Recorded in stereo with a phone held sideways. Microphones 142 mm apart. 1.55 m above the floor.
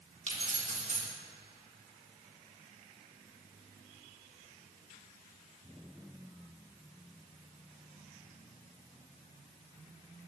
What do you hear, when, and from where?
0.3 s keys jangling: 60° right (ahead or behind), 1.7 m